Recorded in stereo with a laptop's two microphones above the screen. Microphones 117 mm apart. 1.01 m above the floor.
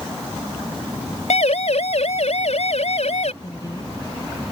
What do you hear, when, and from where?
1.3 s a siren: 75° left (ahead or behind)
3.4 s a woman speaking: 35° left (ahead or behind)